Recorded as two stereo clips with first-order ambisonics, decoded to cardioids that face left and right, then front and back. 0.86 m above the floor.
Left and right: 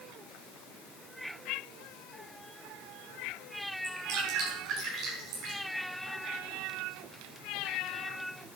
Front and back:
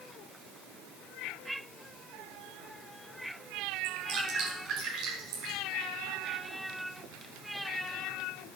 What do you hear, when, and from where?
3.8 s dripping: 135° right, 5 m